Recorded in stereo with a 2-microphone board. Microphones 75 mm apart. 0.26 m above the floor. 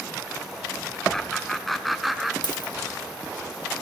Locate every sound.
1.1 s laughter: 10° left (ahead or behind), 3.5 m; by 2.3 s centre (ahead or behind), 4 m
2.4 s a dropped coin: 85° left, 4.5 m